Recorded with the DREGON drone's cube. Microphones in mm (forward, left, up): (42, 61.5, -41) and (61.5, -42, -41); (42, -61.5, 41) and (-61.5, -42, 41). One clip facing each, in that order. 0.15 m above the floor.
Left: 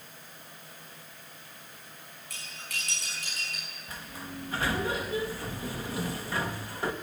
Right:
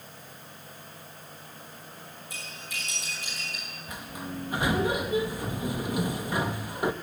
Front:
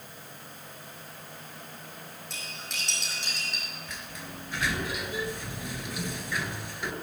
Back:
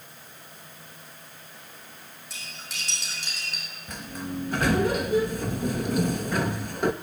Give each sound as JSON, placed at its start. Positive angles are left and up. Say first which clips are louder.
{"t": 2.3, "sound": "cutlery clinking", "louder": "even, back 1 dB", "azimuth_deg": 80, "distance_m": 6.5}
{"t": 3.9, "sound": "a sliding door", "louder": "right 4 dB, back 7 dB", "azimuth_deg": -150, "distance_m": 0.7}